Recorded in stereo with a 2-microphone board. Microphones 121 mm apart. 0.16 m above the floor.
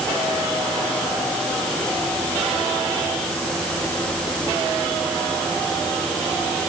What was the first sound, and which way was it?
Only background noise.